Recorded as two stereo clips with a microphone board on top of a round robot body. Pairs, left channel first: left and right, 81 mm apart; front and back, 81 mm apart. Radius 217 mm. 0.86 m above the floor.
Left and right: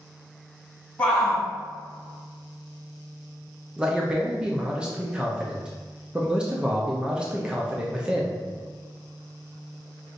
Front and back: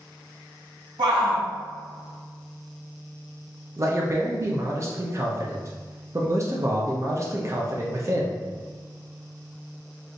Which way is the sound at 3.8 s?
160° right.